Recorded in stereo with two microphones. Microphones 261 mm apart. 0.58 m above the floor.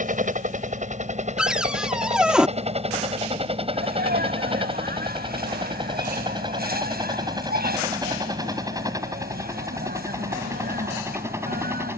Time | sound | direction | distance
0.0 | a helicopter | 30° right (ahead or behind) | ?
1.4 | a cupboard door | 5° right (ahead or behind) | ?
3.7 | a sneeze | 35° right (ahead or behind) | ?